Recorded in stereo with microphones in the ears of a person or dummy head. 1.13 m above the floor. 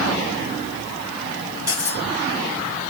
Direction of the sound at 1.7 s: 20° right (ahead or behind).